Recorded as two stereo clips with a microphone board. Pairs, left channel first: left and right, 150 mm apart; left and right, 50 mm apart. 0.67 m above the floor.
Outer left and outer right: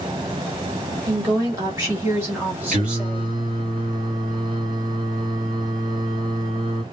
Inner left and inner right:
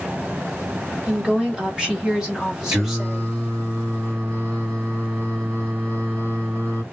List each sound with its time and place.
1.1 s a woman speaking: 20° right (ahead or behind), 1.2 m; by 3.7 s centre (ahead or behind), 1.3 m
2.7 s singing: 65° right (ahead or behind), 1.9 m